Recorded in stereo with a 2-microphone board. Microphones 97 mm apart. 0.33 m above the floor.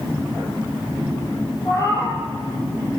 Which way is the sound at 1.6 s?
35° left (ahead or behind).